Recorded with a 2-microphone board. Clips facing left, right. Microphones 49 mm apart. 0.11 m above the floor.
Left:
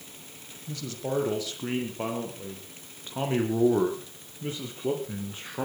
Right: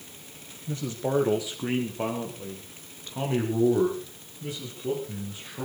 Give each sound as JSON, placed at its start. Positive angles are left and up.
{"t": 0.7, "sound": "a man speaking", "side_deg": -30, "distance_m": 4.5}